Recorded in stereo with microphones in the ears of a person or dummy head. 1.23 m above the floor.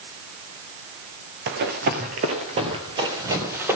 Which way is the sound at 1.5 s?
50° right (ahead or behind).